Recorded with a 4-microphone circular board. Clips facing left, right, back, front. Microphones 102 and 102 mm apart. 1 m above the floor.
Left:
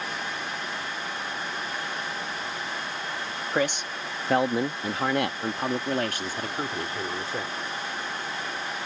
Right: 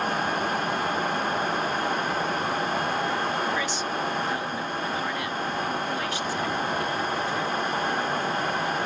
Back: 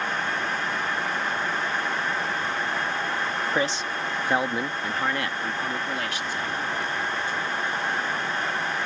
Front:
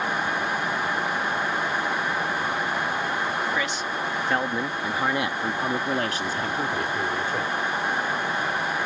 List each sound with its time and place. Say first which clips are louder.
3.5 s a man speaking: even, back 1 dB; 125° left; by 7.5 s 35° left